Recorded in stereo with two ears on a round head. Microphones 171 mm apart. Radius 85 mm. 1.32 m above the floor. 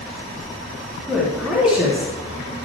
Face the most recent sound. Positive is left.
turn(degrees=-5)  # may be behind; listen again after turning